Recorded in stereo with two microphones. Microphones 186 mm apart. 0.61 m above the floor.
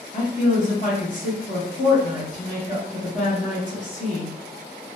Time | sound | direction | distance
0.1 | a woman speaking | 45° left (ahead or behind) | 0.8 m